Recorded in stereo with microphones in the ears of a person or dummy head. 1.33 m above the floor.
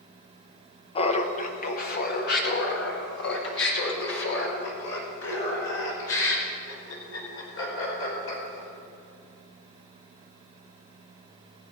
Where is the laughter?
30° left (ahead or behind), 1.2 m; by 8.7 s 80° left, 6 m.